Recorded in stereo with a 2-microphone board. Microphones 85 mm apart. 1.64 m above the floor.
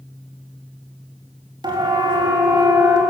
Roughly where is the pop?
No pop in this recording.